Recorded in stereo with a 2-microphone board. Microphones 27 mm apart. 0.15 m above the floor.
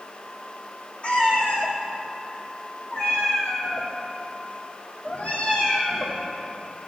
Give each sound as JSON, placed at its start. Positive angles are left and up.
{"t": 1.0, "sound": "a cat meowing", "side_deg": 50, "distance_m": 3.0}